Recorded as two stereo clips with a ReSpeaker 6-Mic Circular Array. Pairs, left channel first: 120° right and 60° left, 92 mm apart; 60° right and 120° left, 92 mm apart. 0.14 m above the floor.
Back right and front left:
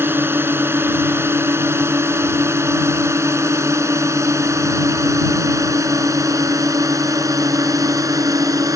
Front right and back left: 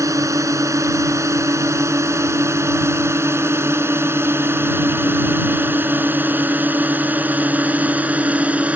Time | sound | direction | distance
0.0 | a drone | 105° left | ?